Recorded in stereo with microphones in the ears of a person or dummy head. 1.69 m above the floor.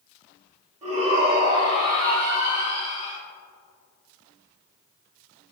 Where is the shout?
30° right (ahead or behind), 2 m; by 3.2 s 40° left (ahead or behind), 2.5 m.